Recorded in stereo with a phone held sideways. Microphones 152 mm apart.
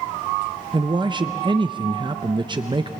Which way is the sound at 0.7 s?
30° right (ahead or behind).